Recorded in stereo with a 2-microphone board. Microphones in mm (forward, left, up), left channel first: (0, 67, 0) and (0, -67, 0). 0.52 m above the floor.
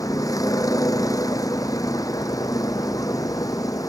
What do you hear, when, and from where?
0.0 s a vehicle: 25° left (ahead or behind)